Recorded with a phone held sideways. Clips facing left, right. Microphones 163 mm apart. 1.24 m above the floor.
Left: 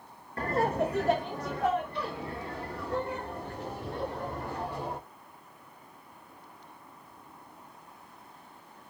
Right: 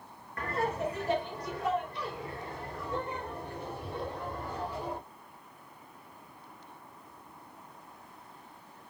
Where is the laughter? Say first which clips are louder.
Left 4 dB; 35° left (ahead or behind), 0.5 m; by 5.0 s 70° left (ahead or behind), 2.5 m.